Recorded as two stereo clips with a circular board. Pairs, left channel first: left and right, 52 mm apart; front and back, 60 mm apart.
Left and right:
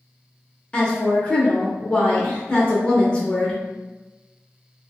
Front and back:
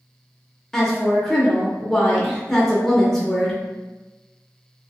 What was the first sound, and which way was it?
A woman speaking, 70° left.